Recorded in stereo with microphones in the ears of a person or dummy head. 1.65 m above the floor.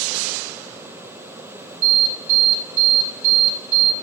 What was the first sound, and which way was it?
An alarm, 70° right (ahead or behind).